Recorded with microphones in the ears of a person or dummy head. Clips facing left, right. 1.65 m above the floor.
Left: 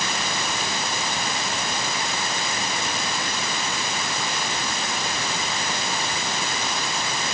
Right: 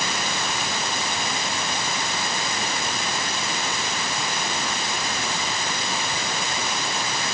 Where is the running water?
I don't hear running water.